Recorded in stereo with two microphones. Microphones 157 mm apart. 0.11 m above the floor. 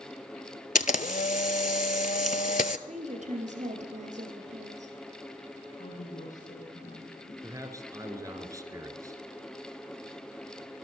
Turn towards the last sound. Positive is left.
turn(degrees=-25)  # may be behind; listen again after turning